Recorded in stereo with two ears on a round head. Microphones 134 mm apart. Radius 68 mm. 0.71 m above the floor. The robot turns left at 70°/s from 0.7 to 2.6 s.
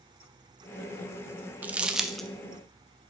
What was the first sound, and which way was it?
Crumpling, 10° right (ahead or behind).